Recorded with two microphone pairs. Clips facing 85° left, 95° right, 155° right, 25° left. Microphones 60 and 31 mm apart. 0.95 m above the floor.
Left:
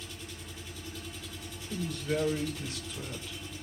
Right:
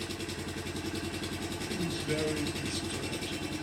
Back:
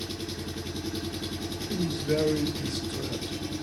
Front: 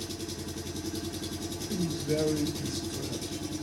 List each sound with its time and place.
0.0 s an engine running: 95° right, 0.9 m
1.7 s a woman speaking: straight behind, 3 m